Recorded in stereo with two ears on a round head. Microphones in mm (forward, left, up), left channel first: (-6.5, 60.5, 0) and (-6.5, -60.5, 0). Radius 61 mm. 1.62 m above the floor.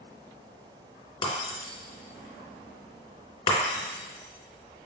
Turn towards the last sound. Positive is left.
turn(degrees=35)  # may be behind; listen again after turning